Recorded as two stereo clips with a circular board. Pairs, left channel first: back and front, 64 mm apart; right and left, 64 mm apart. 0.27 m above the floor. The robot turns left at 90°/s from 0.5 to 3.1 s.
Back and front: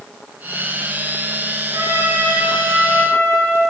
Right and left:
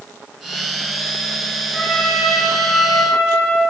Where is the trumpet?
Straight ahead, 2 m; by 3.6 s 125° right, 2 m.